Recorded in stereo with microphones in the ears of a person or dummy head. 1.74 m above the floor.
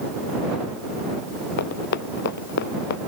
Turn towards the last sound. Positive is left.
turn(degrees=60)  # may be behind; listen again after turning